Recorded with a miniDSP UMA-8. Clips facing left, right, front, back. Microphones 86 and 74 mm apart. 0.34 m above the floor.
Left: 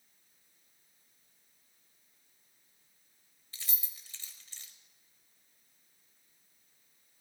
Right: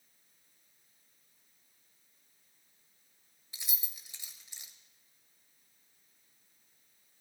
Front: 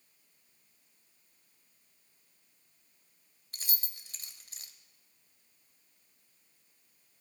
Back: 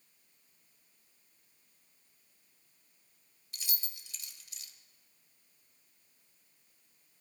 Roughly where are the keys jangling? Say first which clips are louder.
Right 1 dB, front 1 dB; ahead.